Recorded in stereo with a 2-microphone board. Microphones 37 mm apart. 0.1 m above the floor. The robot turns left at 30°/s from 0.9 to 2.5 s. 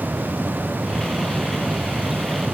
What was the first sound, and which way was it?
Only background noise.